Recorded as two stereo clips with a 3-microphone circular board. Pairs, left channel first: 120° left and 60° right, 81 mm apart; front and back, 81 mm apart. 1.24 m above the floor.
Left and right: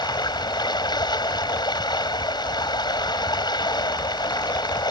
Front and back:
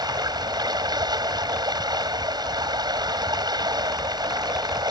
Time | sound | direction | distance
0.0 | running water | 150° left | ?